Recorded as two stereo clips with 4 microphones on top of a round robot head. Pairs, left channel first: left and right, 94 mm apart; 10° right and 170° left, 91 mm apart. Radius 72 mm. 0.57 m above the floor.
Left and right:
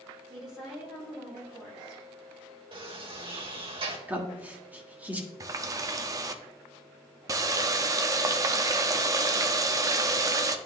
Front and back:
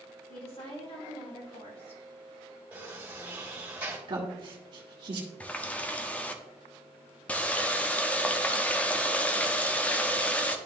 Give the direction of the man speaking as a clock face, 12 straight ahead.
5 o'clock.